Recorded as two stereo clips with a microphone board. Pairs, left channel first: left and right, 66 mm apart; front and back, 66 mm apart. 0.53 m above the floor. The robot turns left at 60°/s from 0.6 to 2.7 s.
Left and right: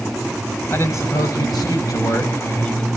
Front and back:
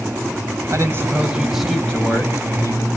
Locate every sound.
0.7 s a man speaking: 145° left, 2.5 m; by 2.9 s 25° left, 2.5 m